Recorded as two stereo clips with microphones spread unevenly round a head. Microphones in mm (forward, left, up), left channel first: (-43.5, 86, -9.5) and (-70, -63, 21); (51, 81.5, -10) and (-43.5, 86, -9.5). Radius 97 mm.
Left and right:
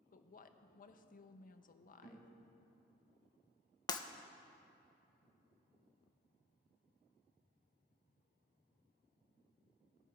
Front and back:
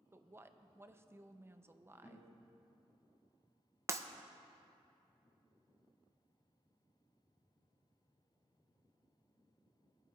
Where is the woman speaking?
115° left, 0.8 m.